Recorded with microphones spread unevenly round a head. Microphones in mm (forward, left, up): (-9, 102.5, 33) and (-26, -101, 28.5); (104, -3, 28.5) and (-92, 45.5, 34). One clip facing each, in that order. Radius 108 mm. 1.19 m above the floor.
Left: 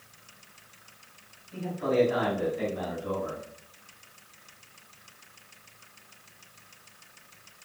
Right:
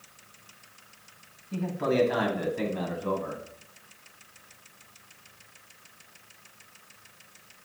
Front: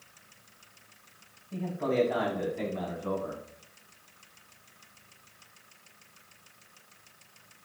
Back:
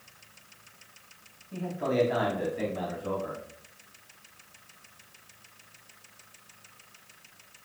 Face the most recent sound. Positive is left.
turn(degrees=-115)